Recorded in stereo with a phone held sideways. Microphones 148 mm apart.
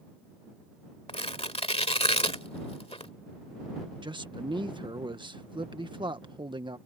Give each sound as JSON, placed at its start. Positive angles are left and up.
{"t": 1.1, "sound": "tearing paper", "side_deg": 40}
{"t": 4.0, "sound": "a man speaking", "side_deg": -30}